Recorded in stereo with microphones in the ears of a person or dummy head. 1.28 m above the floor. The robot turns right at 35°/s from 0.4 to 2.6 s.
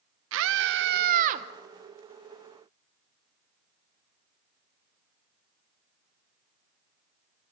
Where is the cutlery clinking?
No cutlery clinking in this recording.